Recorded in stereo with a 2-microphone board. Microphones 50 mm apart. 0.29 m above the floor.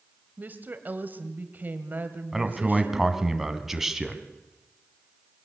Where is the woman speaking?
40° right (ahead or behind), 1.8 m.